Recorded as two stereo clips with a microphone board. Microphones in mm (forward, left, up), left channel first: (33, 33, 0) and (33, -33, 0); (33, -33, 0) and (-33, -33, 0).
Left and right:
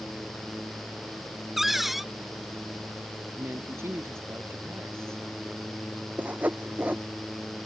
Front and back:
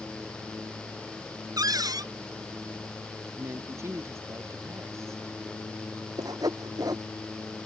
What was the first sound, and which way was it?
A cupboard door, straight behind.